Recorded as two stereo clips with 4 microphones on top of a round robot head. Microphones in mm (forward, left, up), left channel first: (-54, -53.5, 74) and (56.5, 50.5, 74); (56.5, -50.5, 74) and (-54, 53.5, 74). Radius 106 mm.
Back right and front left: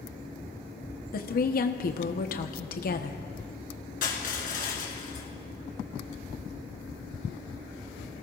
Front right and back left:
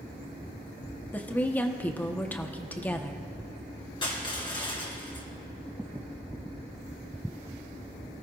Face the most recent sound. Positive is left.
turn(degrees=-105)